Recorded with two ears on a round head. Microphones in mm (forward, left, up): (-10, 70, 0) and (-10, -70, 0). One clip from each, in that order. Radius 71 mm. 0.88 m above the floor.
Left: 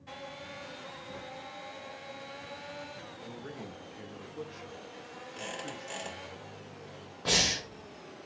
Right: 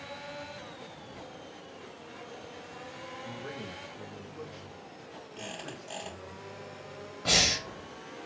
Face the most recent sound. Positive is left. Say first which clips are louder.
# right 2 dB
turn(degrees=0)  # may be behind; listen again after turning